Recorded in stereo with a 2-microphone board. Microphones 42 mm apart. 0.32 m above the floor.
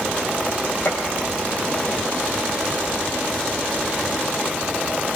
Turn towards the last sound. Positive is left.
turn(degrees=55)  # may be behind; listen again after turning